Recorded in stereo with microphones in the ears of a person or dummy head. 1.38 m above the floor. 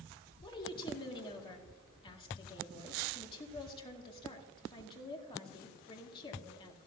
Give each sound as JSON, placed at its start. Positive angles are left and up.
{"t": 0.4, "sound": "a woman speaking", "side_deg": 25, "distance_m": 2.0}